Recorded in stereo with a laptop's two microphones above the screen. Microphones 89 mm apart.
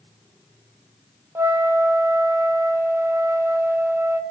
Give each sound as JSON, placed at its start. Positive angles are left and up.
{"t": 1.4, "sound": "a flute", "side_deg": -30, "distance_m": 0.7}